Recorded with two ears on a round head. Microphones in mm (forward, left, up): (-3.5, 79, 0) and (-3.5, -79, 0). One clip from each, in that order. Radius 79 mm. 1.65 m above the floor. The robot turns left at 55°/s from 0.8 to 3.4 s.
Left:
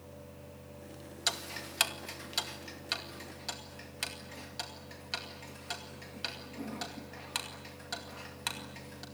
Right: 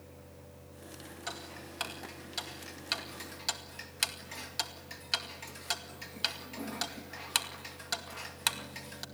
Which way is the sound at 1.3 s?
75° left (ahead or behind).